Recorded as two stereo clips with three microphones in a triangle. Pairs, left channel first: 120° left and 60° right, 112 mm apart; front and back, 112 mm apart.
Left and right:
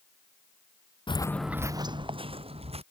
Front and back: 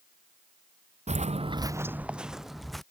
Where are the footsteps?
165° left; by 2.8 s 90° right.